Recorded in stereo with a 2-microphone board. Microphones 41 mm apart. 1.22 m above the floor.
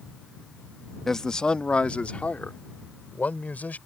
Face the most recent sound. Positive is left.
turn(degrees=40)  # may be behind; listen again after turning